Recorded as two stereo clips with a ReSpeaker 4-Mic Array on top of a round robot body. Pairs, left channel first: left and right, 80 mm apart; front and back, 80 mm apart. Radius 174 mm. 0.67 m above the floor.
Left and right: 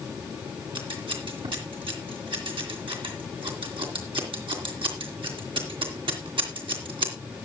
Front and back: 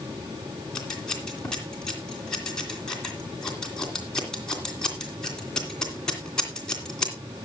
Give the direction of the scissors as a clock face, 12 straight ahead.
3 o'clock.